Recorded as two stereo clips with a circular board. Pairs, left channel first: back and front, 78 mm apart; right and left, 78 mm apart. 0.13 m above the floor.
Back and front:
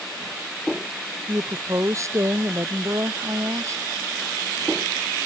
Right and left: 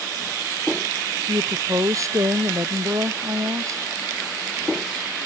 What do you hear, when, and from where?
1.3 s a woman speaking: 45° left